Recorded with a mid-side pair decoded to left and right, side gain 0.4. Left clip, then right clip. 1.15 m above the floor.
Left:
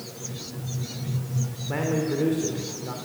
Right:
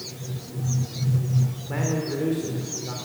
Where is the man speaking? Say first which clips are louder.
Left 2 dB; 15° left, 3 m.